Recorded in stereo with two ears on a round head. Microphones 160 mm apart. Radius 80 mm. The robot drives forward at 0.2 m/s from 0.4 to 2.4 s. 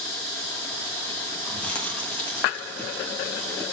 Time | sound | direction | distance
1.5 | chewing | 5° left (ahead or behind) | 1.6 m